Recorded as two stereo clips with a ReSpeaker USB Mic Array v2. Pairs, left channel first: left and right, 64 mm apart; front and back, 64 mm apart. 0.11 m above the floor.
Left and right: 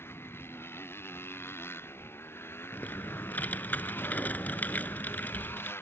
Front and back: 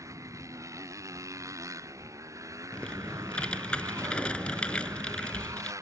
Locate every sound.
0.0 s a motorcycle: 145° left
2.7 s typing on a keyboard: 60° left